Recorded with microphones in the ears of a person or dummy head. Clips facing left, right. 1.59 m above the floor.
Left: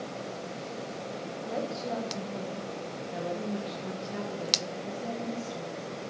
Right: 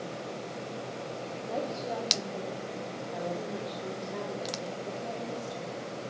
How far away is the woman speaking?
About 1.5 m.